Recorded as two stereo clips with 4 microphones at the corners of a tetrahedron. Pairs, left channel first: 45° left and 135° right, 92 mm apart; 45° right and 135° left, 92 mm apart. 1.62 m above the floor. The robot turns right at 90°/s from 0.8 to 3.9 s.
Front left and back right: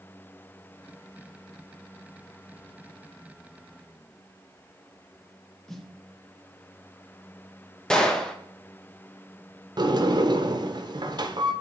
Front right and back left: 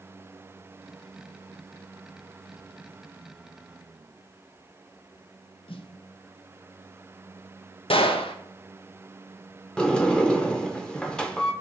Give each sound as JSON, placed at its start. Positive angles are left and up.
{"t": 5.7, "sound": "a snare drum", "azimuth_deg": -40, "distance_m": 0.8}
{"t": 7.9, "sound": "a gunshot", "azimuth_deg": -35, "distance_m": 0.9}
{"t": 9.8, "sound": "a sliding door", "azimuth_deg": -125, "distance_m": 0.8}